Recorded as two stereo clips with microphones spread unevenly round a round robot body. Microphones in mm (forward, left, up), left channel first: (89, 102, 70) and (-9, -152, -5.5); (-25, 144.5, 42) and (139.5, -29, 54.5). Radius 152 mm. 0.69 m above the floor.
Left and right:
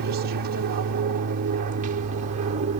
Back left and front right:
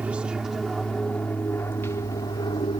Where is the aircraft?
130° right; by 2.8 s 160° right.